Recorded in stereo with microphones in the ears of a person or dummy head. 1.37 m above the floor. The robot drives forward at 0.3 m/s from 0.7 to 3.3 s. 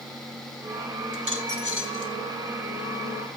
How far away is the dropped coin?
About 3 m.